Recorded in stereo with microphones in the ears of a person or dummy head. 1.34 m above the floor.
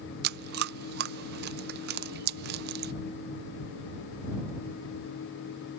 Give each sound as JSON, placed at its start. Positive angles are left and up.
{"t": 0.2, "sound": "chewing", "side_deg": -55}